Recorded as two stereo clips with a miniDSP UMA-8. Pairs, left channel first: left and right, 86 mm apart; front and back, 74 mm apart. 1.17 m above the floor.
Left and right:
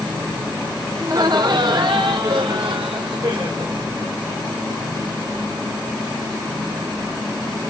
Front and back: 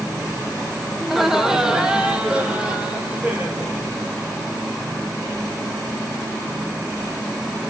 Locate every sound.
1.0 s laughter: 85° right, 0.6 m; by 3.8 s 110° right, 2 m